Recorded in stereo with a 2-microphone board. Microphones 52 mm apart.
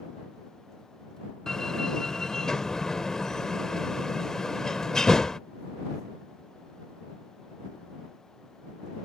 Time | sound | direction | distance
1.5 | a door slam | 10° left (ahead or behind) | ?